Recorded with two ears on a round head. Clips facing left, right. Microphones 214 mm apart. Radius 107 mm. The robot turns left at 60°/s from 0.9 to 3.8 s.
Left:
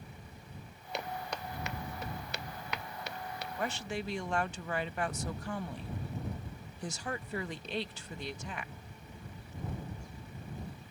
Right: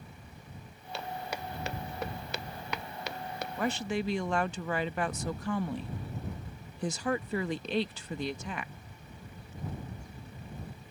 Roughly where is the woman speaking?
Right.